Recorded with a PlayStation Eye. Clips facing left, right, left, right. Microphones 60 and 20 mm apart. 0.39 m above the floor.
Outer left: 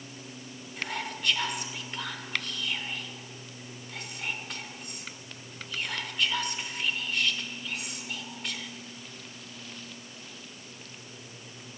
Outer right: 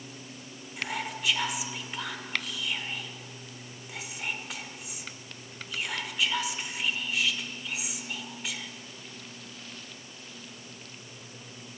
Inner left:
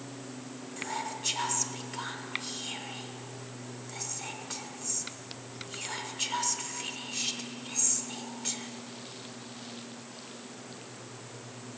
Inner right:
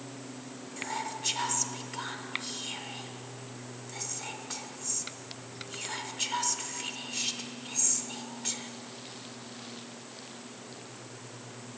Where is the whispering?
5° right (ahead or behind), 0.8 m.